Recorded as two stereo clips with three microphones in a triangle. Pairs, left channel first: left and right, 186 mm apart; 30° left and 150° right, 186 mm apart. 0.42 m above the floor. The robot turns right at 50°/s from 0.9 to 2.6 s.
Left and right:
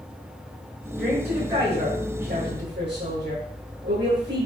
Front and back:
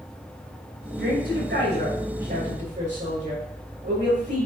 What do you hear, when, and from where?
1.0 s a woman speaking: 175° left, 6.5 m; by 4.5 s 105° right, 6.5 m